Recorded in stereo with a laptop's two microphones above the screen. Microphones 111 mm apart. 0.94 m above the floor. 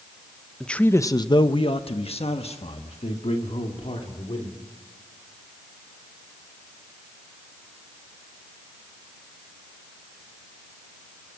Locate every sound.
0.6 s a man speaking: 5° left (ahead or behind), 0.8 m; by 4.6 s 65° left (ahead or behind), 3 m